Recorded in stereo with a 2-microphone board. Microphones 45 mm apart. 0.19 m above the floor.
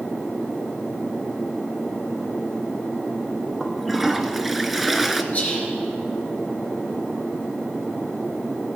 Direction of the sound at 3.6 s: Centre (ahead or behind).